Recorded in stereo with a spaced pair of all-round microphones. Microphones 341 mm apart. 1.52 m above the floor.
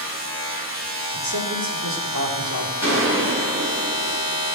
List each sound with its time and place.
0.0 s a machine running: 35° right (ahead or behind), 5.5 m
1.1 s a man speaking: 80° right, 3.5 m
2.8 s a gunshot: 5° right (ahead or behind), 7.5 m